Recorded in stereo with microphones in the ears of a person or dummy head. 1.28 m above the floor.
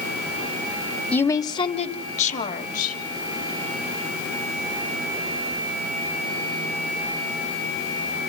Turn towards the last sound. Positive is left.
turn(degrees=50)  # may be behind; listen again after turning